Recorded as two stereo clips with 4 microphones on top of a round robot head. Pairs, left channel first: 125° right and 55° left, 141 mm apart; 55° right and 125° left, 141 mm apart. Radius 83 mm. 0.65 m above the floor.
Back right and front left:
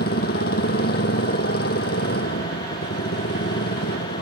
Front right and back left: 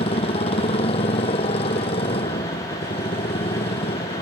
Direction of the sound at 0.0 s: 105° right.